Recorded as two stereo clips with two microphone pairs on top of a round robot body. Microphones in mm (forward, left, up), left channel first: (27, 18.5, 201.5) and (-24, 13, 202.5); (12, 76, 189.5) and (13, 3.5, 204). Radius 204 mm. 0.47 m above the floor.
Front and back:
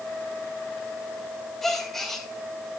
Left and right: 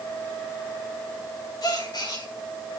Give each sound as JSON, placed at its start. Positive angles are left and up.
{"t": 1.6, "sound": "a gasp", "azimuth_deg": 90, "distance_m": 6.5}